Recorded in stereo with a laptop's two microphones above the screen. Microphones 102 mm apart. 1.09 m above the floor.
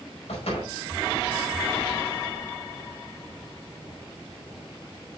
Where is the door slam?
85° left, 5 m.